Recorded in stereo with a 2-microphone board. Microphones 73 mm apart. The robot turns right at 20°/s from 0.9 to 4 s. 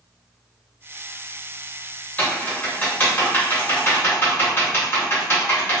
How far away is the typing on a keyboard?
About 0.8 m.